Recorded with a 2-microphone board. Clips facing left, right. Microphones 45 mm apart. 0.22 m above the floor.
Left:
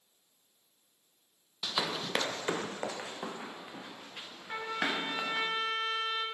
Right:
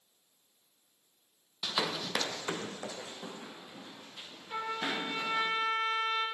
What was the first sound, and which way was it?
Running footsteps, 10° right (ahead or behind).